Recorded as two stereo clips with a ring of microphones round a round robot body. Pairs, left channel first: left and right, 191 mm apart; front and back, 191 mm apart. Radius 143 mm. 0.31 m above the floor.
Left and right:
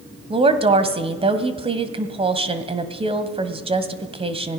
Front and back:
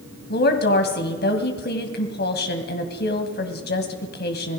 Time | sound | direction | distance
0.3 | a woman speaking | 30° right | 1.8 m